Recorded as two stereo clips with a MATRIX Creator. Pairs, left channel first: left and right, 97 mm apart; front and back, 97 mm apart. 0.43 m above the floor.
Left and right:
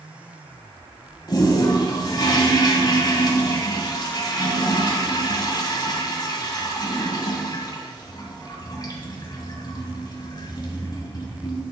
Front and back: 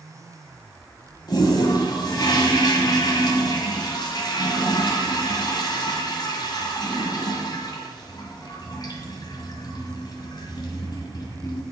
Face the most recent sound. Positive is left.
turn(degrees=45)